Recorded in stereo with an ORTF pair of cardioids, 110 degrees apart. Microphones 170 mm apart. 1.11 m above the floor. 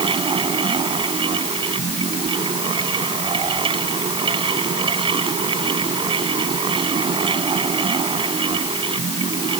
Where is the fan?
30° right.